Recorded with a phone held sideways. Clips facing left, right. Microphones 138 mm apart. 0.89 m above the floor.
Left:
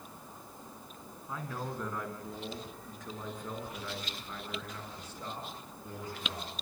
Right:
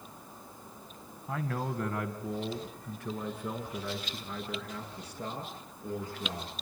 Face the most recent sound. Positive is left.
turn(degrees=-65)  # may be behind; listen again after turning